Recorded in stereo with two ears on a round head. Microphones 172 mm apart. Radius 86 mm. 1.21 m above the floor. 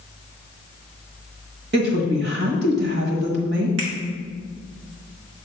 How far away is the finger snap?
About 1.7 m.